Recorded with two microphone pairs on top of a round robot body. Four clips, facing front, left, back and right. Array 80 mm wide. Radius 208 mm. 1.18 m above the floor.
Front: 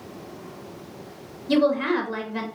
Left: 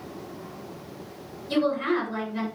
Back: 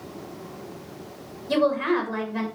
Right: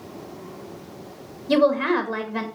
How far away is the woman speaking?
About 2.5 m.